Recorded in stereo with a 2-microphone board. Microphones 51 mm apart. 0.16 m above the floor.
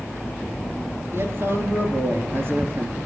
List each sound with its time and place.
1.1 s a man speaking: 55° right (ahead or behind), 3.5 m